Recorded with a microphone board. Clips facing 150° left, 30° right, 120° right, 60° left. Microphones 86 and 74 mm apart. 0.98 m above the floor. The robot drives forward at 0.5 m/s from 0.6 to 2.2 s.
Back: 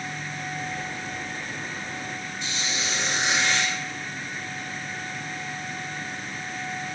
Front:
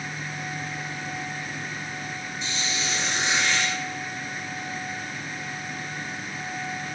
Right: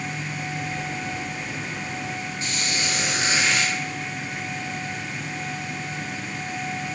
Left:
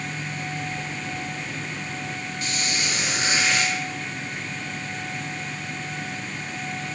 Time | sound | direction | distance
2.4 | a squeak | straight behind | 1.1 m